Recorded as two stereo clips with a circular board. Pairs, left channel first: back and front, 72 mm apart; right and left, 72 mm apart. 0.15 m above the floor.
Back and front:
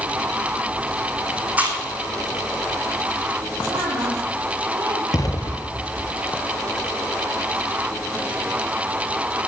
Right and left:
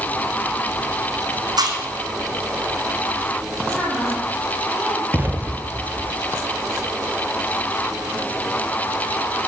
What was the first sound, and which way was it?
Chewing, 70° left.